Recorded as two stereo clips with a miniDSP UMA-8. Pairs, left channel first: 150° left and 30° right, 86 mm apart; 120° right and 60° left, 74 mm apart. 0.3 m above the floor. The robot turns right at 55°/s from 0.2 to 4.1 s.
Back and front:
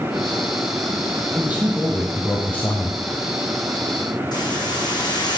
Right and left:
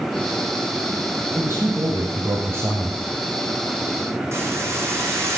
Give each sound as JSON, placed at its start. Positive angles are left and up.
{"t": 1.4, "sound": "a man speaking", "azimuth_deg": 25, "distance_m": 1.3}
{"t": 4.3, "sound": "a hiss", "azimuth_deg": 115, "distance_m": 3.5}